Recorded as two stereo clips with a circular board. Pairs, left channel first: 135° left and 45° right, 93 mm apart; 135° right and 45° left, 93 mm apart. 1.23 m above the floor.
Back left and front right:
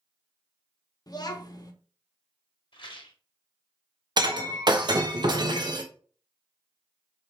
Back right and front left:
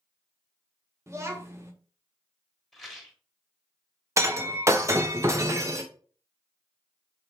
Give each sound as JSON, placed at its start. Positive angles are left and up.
{"t": 1.1, "sound": "a child speaking", "azimuth_deg": 100, "distance_m": 1.0}
{"t": 2.7, "sound": "a rattle", "azimuth_deg": 140, "distance_m": 1.2}
{"t": 4.2, "sound": "breaking glass", "azimuth_deg": -10, "distance_m": 0.7}